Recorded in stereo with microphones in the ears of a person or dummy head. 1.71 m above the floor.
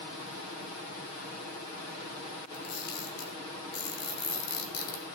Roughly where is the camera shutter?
Left.